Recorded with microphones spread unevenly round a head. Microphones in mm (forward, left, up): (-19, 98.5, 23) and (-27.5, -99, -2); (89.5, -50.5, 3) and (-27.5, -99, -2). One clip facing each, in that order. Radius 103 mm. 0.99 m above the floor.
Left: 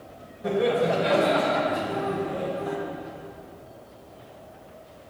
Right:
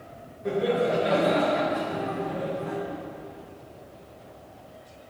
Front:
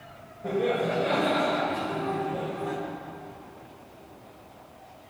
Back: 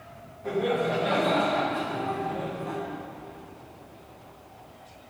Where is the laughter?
80° left, 4.5 m; by 2.8 s 35° left, 3 m.